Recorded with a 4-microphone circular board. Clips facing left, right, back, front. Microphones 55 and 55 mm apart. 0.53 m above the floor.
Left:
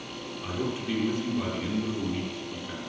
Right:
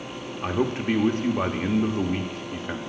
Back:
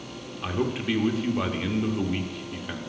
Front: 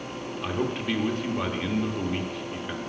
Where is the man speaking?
95° right, 0.9 m.